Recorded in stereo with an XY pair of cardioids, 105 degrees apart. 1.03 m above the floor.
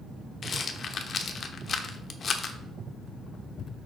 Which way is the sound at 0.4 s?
45° left.